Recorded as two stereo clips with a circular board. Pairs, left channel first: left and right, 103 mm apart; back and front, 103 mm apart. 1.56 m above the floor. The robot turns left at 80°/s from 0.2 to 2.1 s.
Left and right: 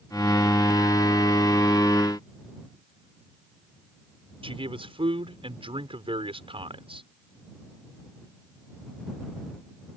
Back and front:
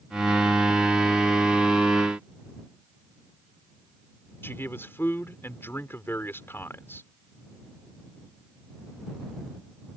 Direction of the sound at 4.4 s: 110° right.